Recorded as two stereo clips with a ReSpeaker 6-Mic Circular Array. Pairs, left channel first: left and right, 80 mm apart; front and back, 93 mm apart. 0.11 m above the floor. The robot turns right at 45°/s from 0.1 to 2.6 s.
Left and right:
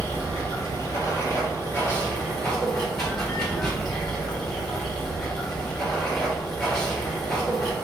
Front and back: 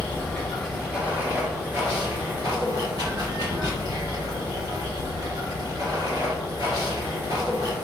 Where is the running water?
65° left, 1.9 m; by 7.9 s 175° left, 1.9 m.